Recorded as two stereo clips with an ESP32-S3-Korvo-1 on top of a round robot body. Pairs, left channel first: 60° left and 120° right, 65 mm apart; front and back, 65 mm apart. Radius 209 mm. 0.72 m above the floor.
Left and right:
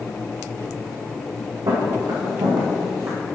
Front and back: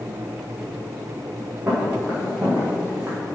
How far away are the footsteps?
About 1.8 m.